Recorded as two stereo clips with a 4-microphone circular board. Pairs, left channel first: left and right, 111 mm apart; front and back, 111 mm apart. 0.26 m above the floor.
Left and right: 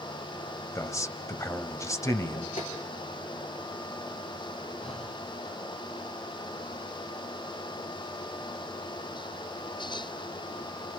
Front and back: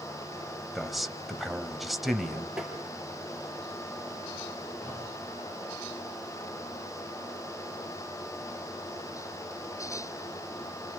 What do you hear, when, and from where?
0.8 s a man speaking: 90° left, 1.2 m
2.6 s tapping: 95° left, 5.5 m
4.8 s breathing: 70° left, 6 m